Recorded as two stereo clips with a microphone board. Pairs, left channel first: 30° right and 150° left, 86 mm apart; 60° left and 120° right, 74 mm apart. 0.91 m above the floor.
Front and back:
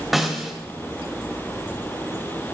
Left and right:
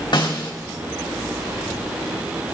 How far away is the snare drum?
About 2.5 m.